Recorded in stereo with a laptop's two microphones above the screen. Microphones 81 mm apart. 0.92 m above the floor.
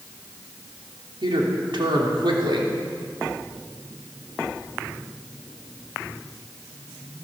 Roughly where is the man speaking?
Right.